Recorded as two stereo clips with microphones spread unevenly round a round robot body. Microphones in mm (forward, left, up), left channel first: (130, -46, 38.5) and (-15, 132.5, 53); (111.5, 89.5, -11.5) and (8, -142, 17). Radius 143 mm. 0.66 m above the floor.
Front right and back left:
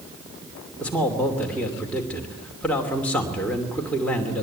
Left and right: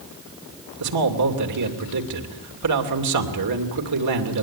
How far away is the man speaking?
About 3 m.